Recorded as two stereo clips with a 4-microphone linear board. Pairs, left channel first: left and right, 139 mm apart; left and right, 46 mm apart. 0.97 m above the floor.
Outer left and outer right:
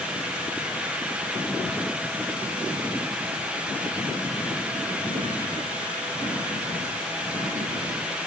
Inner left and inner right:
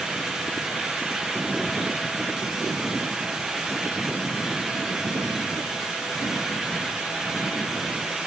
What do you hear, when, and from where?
Only background noise.